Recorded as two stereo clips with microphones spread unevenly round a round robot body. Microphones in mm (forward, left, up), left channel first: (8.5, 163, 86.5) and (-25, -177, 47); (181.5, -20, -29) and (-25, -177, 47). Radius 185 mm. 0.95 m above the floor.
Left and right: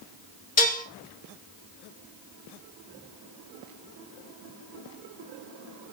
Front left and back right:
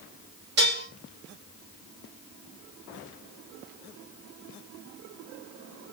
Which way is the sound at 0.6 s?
150° left.